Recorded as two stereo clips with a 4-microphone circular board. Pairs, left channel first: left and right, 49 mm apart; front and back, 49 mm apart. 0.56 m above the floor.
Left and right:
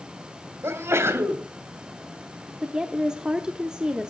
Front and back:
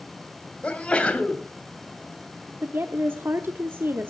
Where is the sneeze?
65° right, 2.5 m.